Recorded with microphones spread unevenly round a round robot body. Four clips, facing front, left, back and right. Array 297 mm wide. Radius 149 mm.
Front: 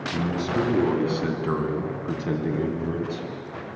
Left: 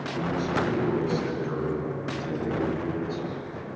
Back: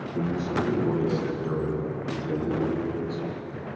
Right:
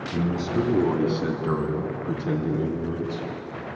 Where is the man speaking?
45° right, 5.5 m; by 3.3 s 20° right, 4.5 m.